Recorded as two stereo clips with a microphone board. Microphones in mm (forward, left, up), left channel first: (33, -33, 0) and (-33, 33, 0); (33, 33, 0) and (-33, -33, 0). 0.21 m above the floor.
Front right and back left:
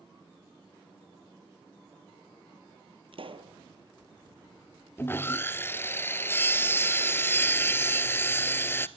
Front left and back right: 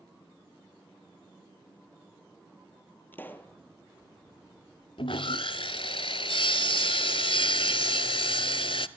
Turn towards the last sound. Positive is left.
turn(degrees=20)